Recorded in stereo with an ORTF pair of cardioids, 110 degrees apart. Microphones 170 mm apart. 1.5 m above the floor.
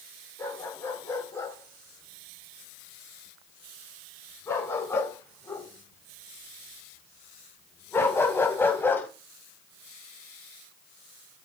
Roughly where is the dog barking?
Ahead.